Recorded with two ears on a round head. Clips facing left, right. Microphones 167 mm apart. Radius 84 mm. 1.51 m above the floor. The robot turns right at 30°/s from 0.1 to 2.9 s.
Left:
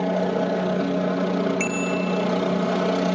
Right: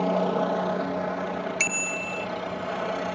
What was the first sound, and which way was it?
A helicopter, 10° left (ahead or behind).